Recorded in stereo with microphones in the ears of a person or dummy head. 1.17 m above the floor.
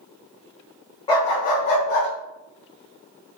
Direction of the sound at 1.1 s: 25° left (ahead or behind).